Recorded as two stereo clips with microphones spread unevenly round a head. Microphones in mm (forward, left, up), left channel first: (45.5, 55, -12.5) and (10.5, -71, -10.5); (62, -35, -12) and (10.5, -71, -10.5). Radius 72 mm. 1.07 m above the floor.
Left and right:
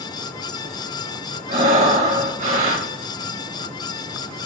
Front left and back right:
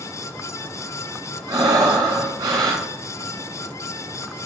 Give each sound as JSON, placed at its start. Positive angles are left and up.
{"t": 1.5, "sound": "breathing", "azimuth_deg": -140, "distance_m": 2.0}